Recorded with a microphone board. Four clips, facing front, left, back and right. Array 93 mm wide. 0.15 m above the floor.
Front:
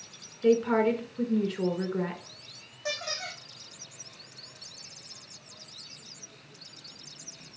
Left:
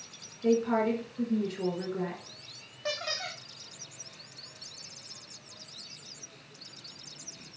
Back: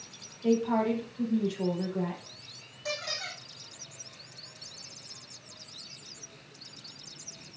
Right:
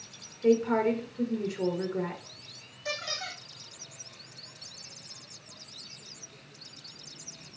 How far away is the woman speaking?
About 2 m.